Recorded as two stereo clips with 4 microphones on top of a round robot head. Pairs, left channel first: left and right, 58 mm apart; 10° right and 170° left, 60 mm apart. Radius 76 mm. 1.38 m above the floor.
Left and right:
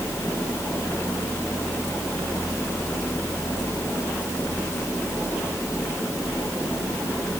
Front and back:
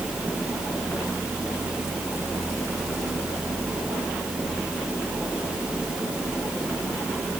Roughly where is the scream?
I don't hear a scream.